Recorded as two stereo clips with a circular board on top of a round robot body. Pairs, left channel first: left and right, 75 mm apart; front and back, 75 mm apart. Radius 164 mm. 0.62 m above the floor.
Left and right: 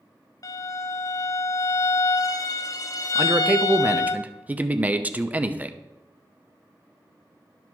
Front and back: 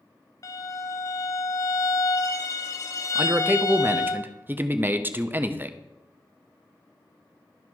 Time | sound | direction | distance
0.4 | a violin | 50° left | 0.7 m
3.1 | a man speaking | 140° right | 0.9 m